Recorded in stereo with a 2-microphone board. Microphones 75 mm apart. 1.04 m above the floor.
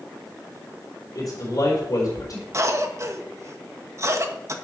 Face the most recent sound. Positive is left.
turn(degrees=-40)  # may be behind; listen again after turning